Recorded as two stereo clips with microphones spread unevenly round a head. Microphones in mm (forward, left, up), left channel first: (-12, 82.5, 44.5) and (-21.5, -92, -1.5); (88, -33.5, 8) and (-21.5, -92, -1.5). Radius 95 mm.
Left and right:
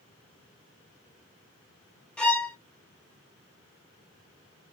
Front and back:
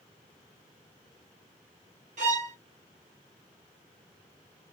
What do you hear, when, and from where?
2.2 s a violin: 175° left, 0.7 m